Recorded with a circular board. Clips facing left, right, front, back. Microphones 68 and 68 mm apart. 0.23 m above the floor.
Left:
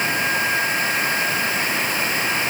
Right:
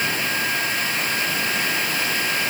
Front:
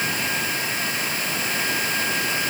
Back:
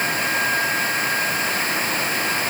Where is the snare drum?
I don't hear a snare drum.